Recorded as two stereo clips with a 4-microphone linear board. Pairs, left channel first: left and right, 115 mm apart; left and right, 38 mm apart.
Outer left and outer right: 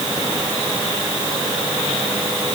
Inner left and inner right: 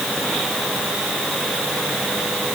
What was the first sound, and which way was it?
Only background noise.